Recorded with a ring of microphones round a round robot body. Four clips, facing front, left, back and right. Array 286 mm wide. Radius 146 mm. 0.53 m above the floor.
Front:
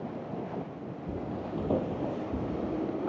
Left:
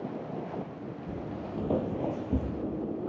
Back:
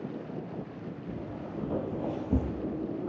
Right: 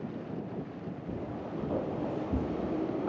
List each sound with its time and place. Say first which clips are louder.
1.1 s footsteps: even, front 5 dB; 25° left, 1.3 m; by 2.5 s 170° left, 0.7 m